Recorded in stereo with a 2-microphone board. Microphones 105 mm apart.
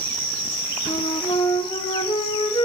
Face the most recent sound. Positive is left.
turn(degrees=65)  # may be behind; listen again after turning